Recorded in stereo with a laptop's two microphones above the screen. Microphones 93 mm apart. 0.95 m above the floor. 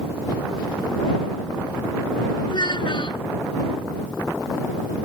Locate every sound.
2.5 s a child speaking: 55° left (ahead or behind)